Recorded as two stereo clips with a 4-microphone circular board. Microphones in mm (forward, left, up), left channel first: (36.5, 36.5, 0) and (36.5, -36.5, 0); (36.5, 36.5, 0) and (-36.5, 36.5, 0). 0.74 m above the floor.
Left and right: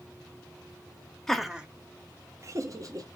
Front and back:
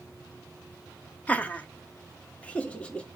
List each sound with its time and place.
1.3 s laughter: 15° left, 0.6 m; by 3.1 s 70° right, 1.1 m